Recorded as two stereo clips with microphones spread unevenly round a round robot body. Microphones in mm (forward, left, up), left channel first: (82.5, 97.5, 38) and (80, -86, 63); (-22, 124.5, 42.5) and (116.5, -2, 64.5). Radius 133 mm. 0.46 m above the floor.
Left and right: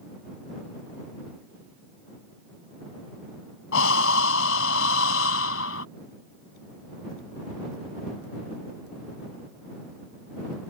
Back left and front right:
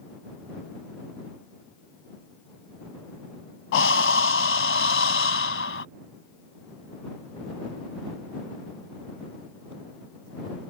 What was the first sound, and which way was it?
Breathing, 120° left.